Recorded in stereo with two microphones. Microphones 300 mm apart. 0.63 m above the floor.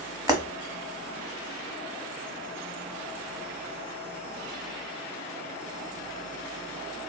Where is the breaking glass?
10° right (ahead or behind), 0.9 m.